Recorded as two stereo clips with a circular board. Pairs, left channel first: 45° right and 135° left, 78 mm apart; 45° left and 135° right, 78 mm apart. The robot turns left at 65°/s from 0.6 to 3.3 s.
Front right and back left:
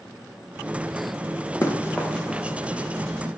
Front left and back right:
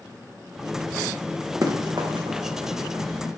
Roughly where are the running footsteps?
Right.